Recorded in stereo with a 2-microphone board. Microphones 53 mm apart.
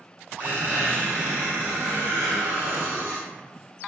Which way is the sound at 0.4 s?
40° right (ahead or behind).